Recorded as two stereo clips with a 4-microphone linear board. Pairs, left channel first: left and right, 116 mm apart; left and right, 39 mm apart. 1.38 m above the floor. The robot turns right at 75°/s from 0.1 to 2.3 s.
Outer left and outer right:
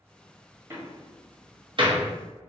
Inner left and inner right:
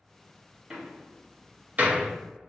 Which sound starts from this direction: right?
A door slam, at 0.7 s.